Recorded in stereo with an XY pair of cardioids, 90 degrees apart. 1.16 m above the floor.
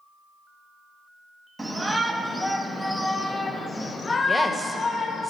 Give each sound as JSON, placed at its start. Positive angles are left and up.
{"t": 1.6, "sound": "a shout", "azimuth_deg": -20, "distance_m": 2.0}
{"t": 4.3, "sound": "a woman speaking", "azimuth_deg": -10, "distance_m": 1.9}